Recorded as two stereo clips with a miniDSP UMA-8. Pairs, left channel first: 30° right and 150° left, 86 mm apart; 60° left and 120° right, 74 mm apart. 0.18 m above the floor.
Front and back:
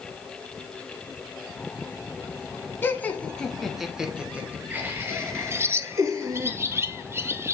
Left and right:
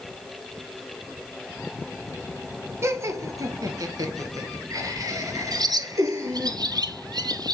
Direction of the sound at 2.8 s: 85° right.